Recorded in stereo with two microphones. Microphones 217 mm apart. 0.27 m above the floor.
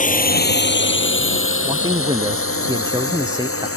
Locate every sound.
0.0 s a drone: 35° left (ahead or behind); by 3.8 s 85° left
1.6 s a man speaking: 20° right (ahead or behind)